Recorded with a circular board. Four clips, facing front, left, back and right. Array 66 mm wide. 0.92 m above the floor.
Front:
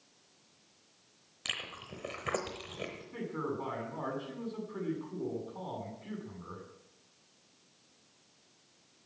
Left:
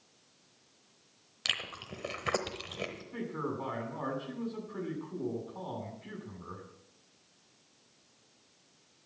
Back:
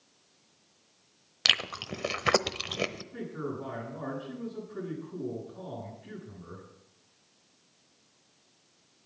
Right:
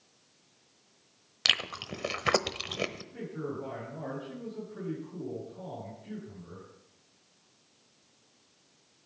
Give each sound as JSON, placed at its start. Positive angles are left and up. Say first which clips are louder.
{"t": 1.4, "sound": "chewing", "louder": "right 6 dB, back 11 dB", "azimuth_deg": -150, "distance_m": 0.9}
{"t": 3.1, "sound": "a man speaking", "louder": "left 1 dB, even", "azimuth_deg": 50, "distance_m": 8.0}